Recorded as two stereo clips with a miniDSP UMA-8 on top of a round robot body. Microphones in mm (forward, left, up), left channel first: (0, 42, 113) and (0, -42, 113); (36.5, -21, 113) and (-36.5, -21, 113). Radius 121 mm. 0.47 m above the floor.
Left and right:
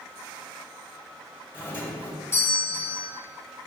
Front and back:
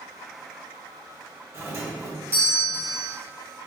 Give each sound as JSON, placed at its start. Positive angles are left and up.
{"t": 1.5, "sound": "a doorbell", "azimuth_deg": 145, "distance_m": 1.6}